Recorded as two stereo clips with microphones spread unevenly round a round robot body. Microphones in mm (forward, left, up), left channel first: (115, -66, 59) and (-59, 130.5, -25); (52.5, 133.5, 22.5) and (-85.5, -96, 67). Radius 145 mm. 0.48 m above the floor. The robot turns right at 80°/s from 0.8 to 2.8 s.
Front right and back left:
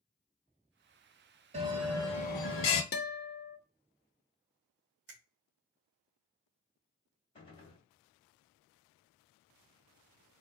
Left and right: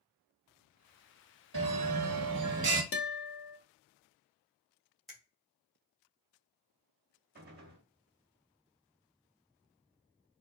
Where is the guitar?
10° left, 0.6 m.